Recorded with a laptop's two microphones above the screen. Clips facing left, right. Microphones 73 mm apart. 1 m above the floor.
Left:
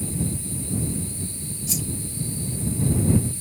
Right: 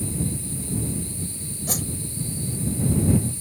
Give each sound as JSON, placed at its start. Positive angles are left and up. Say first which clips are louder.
{"t": 1.7, "sound": "a whoosh", "louder": "right 2 dB", "side_deg": -60}